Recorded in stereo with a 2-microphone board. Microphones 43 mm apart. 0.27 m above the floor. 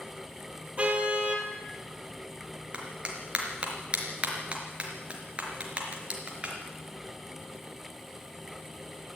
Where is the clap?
25° right (ahead or behind), 4 m.